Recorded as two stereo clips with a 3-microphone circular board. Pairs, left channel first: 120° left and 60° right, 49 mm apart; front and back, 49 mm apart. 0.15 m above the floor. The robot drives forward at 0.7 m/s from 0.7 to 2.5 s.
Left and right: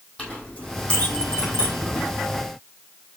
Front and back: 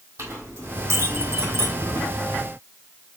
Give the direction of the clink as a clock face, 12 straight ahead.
6 o'clock.